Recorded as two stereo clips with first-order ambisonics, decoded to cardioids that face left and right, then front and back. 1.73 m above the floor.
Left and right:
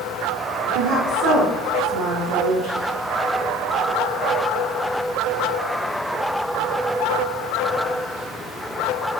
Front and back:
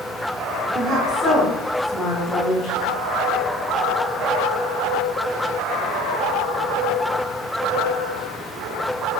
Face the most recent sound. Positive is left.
turn(degrees=-60)